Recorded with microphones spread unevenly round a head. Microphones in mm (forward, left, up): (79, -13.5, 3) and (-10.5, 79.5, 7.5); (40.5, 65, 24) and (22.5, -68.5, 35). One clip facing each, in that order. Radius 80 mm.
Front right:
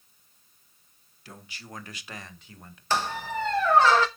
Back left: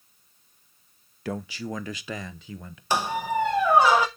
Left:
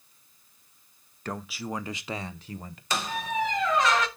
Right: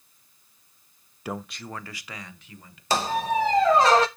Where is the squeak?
150° right, 0.5 m.